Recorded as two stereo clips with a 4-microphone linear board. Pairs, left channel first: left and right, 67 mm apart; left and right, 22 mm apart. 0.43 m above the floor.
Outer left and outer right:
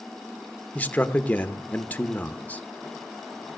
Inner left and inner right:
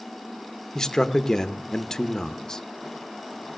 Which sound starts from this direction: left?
A man speaking, at 0.8 s.